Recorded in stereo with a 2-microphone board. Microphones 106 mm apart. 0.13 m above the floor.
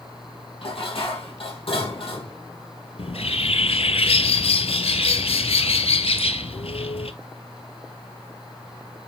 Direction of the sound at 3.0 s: 70° left (ahead or behind).